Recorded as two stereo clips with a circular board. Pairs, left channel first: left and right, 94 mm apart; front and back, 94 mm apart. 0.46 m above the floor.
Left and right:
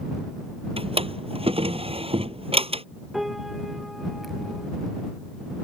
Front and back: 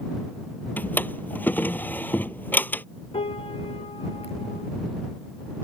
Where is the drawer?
70° right.